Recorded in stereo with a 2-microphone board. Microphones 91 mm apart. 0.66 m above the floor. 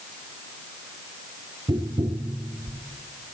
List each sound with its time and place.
1.7 s tapping: 60° right (ahead or behind), 0.6 m